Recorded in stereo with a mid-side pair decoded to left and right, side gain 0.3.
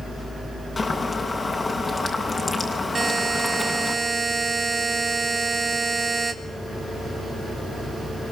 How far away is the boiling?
About 9.5 m.